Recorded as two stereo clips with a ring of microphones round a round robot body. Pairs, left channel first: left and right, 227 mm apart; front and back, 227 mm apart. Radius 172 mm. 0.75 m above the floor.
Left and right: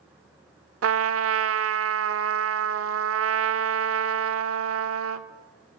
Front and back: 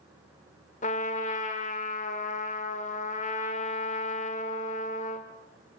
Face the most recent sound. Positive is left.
turn(degrees=-70)